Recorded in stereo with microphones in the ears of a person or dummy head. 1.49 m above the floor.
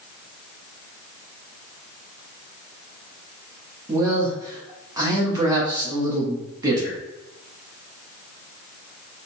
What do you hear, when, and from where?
3.9 s a man speaking: 15° right (ahead or behind), 1.2 m